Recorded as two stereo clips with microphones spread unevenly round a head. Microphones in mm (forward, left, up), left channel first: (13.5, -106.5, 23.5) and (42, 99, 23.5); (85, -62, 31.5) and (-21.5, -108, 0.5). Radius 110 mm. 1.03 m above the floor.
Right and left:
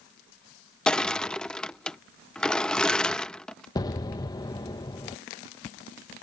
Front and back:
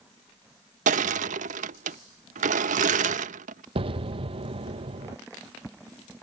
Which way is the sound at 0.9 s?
175° left.